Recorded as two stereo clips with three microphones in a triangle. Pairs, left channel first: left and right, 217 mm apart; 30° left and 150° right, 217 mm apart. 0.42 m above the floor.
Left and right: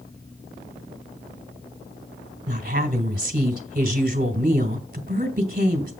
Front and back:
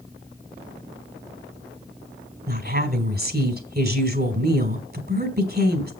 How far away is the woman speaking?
About 1.8 m.